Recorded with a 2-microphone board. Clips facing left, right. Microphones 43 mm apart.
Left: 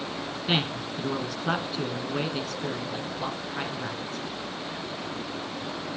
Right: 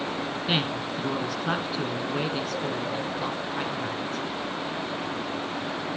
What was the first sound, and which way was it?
A man speaking, centre (ahead or behind).